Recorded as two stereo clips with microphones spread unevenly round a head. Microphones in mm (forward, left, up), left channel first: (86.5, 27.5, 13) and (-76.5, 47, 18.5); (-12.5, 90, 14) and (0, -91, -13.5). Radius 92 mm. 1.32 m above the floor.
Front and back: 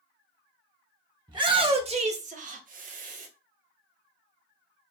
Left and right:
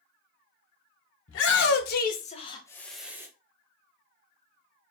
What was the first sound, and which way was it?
A shout, 110° left.